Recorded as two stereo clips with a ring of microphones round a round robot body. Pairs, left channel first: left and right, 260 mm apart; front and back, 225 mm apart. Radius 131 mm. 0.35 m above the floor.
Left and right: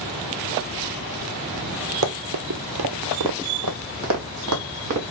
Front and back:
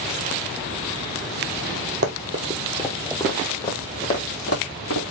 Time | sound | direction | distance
2.0 | running footsteps | 130° right | 0.7 m